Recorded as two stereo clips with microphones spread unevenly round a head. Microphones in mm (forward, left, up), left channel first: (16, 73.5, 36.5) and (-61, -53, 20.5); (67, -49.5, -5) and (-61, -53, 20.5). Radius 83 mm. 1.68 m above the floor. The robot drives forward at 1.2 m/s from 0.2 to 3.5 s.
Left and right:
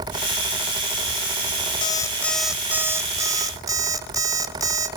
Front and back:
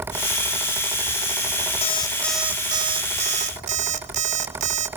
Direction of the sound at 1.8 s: 30° left.